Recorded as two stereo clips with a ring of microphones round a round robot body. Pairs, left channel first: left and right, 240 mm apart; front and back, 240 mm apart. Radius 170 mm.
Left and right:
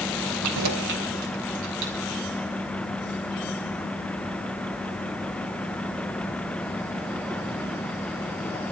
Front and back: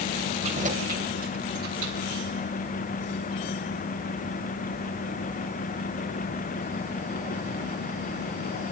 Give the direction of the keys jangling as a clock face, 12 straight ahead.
3 o'clock.